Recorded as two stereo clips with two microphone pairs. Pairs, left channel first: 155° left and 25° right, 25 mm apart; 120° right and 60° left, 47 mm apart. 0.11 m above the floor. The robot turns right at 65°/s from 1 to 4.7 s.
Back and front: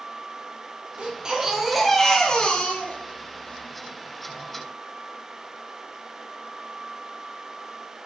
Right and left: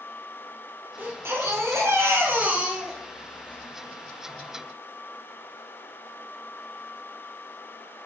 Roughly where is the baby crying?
Ahead.